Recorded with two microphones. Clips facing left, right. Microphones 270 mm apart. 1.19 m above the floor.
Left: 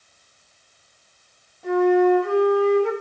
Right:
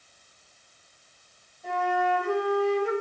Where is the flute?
85° left, 8.5 m.